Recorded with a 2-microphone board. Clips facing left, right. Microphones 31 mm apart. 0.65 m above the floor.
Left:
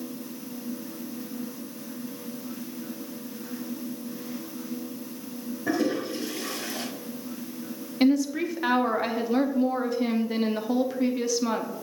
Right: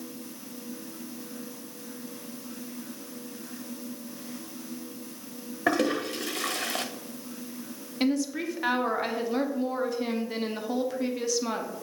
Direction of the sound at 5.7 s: 70° right (ahead or behind).